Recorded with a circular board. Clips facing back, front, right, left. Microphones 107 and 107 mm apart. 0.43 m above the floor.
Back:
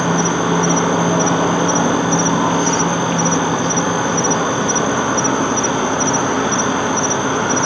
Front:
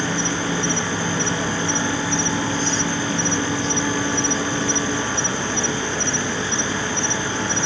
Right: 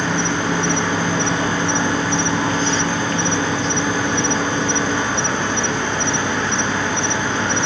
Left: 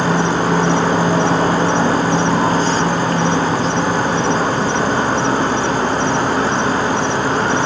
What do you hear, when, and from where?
0.0 s an insect: 145° left